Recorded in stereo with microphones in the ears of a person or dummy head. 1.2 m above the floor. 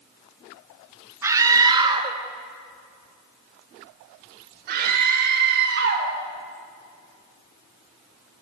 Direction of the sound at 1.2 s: 15° right (ahead or behind).